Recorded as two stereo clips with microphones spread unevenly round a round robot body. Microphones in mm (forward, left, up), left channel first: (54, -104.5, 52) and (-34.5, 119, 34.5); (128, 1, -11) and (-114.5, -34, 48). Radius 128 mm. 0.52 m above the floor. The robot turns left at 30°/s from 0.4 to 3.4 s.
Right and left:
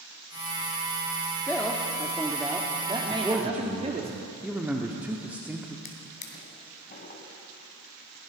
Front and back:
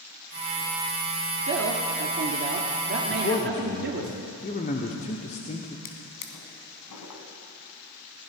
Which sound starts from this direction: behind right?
A man speaking, at 1.5 s.